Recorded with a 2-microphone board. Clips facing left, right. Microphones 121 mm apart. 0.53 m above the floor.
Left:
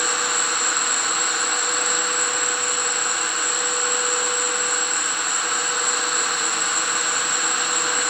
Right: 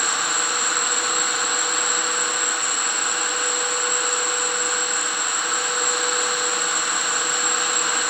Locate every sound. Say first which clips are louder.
0.0 s an insect: left 1 dB; 10° left (ahead or behind), 1.0 m